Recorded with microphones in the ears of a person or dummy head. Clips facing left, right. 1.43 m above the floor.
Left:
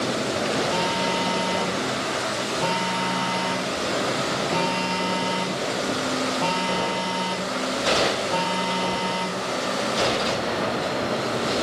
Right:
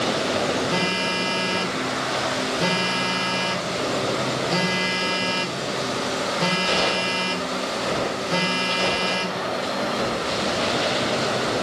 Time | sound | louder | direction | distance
0.7 | a phone buzzing | left 1 dB | 25° right (ahead or behind) | 3 m